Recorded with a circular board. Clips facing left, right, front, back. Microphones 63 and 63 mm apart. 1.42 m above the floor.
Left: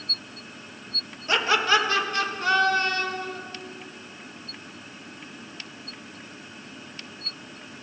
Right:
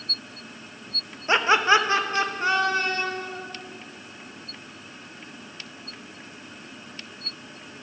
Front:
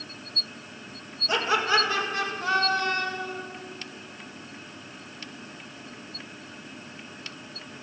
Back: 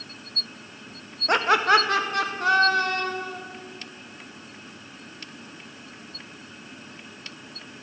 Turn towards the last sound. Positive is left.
turn(degrees=-160)